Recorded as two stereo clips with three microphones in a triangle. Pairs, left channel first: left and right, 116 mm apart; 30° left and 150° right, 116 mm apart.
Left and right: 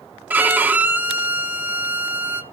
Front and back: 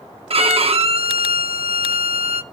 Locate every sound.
0.3 s a violin: 165° right, 0.8 m